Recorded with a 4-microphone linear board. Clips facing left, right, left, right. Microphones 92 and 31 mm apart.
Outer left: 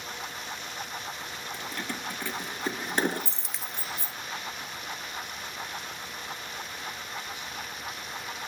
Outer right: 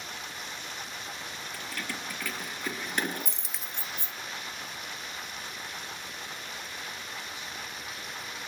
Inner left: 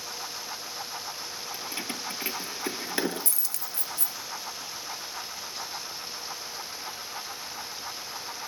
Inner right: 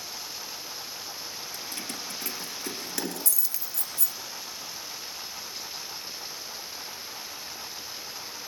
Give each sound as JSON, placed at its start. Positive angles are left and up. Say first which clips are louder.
{"t": 1.5, "sound": "keys jangling", "louder": "outer left 2 dB, inner left 3 dB", "side_deg": 25, "distance_m": 2.5}
{"t": 3.4, "sound": "a dropped coin", "louder": "outer left 3 dB, inner left 1 dB", "side_deg": 0, "distance_m": 0.7}